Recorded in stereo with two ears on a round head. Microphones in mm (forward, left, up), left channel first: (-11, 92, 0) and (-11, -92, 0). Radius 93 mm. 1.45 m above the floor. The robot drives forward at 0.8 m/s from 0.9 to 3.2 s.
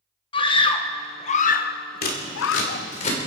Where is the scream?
25° left (ahead or behind), 1.2 m; by 2.9 s 45° left (ahead or behind), 0.7 m.